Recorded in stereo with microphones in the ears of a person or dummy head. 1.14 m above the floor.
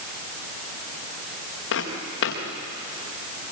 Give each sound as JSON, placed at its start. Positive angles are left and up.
{"t": 1.7, "sound": "footsteps", "side_deg": 75, "distance_m": 4.5}